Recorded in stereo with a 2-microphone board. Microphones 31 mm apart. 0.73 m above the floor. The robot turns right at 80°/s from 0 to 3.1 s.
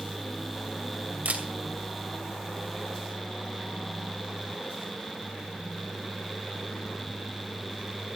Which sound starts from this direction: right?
A camera shutter, at 1.2 s.